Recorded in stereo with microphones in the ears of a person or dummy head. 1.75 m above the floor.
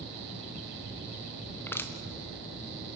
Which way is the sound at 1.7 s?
10° left (ahead or behind).